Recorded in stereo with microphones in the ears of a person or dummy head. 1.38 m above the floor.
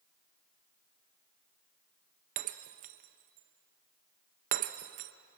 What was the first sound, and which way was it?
Breaking glass, 40° right (ahead or behind).